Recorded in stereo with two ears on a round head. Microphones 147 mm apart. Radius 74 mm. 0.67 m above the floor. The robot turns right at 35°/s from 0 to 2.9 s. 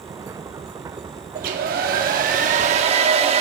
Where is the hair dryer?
100° right, 1.0 m; by 3.4 s 45° right, 1.0 m.